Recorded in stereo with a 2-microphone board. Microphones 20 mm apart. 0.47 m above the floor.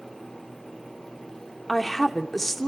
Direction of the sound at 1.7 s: 10° left (ahead or behind).